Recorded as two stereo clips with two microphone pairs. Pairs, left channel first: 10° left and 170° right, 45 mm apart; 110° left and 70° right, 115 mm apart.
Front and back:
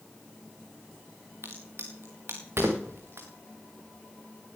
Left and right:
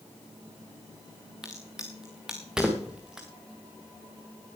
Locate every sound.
1.4 s a crack: 155° right, 3 m